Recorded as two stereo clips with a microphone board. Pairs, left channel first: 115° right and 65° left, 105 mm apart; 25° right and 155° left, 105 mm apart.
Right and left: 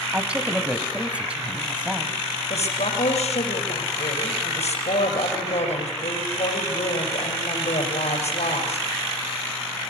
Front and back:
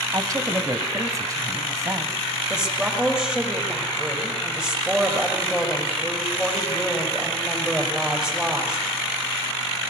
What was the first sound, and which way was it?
A woman speaking, 135° left.